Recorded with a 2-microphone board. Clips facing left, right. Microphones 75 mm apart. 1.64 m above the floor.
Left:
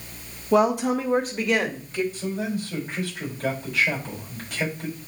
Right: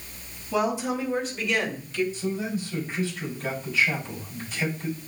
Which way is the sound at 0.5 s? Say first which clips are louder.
Left 6 dB; 65° left (ahead or behind).